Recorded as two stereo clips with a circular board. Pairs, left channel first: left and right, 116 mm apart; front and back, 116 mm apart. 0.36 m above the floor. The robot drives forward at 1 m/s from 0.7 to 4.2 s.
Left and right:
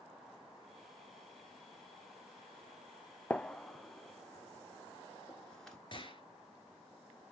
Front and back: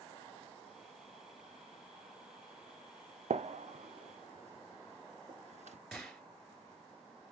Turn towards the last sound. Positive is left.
turn(degrees=90)